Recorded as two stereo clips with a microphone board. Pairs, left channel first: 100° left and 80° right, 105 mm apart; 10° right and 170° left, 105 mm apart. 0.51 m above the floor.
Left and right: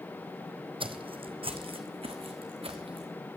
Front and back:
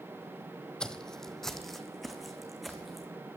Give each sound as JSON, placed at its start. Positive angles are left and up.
{"t": 0.8, "sound": "footsteps", "azimuth_deg": -90, "distance_m": 0.8}